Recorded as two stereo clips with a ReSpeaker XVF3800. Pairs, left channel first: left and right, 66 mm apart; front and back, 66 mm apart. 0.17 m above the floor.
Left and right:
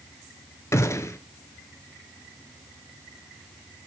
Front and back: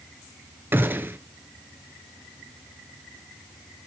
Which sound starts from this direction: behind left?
A gunshot, at 0.7 s.